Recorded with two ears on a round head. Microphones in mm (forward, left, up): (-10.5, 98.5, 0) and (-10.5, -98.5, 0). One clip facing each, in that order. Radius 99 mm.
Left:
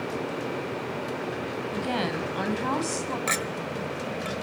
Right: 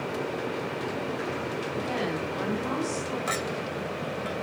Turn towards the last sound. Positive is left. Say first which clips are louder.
# even
turn(degrees=30)  # may be behind; listen again after turning